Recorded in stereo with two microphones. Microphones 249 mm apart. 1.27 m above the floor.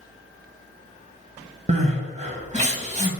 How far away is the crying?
About 1.2 m.